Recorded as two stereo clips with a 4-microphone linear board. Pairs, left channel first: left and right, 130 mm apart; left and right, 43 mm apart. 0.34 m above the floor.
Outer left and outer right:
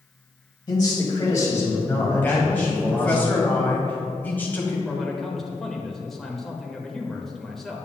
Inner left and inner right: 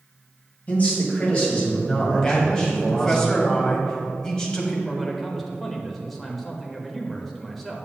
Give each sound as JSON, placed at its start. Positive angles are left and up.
{"t": 0.7, "sound": "a man speaking", "side_deg": 35, "distance_m": 1.9}
{"t": 2.2, "sound": "a man speaking", "side_deg": 15, "distance_m": 1.6}
{"t": 4.8, "sound": "a man speaking", "side_deg": 0, "distance_m": 1.0}